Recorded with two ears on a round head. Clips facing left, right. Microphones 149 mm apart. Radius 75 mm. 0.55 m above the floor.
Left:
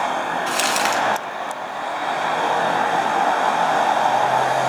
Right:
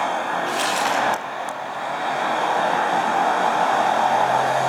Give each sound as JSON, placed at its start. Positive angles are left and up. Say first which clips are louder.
{"t": 0.5, "sound": "crumpling", "louder": "left 1 dB", "side_deg": 65, "distance_m": 2.5}